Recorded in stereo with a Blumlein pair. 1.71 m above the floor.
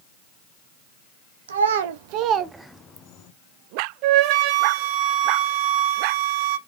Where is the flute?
40° right, 1.2 m.